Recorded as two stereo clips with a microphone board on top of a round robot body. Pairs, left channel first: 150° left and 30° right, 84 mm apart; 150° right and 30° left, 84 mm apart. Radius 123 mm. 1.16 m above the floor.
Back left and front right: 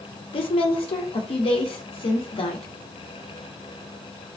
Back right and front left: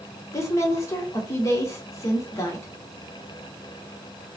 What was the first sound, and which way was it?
A woman speaking, 155° left.